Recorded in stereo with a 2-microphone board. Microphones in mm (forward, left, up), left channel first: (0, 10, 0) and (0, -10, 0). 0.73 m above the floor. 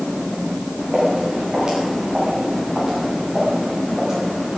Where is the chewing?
No chewing in this recording.